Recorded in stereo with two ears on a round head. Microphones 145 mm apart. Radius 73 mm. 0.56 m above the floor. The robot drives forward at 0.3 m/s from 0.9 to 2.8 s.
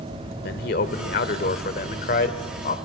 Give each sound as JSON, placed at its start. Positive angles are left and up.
{"t": 0.4, "sound": "a man speaking", "side_deg": 65, "distance_m": 1.5}